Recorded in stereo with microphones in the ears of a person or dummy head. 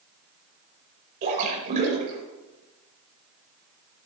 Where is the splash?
45° right (ahead or behind), 5.5 m.